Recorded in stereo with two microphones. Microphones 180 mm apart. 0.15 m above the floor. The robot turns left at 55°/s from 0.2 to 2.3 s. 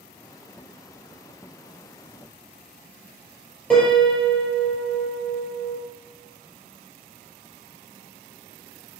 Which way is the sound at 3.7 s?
5° left (ahead or behind).